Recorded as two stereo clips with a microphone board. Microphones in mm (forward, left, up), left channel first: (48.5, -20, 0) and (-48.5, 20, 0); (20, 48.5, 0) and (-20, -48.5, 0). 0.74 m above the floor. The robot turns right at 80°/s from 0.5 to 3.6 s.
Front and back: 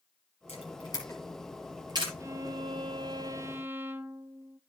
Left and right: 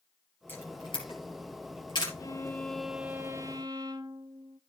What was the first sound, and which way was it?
A camera shutter, 5° right.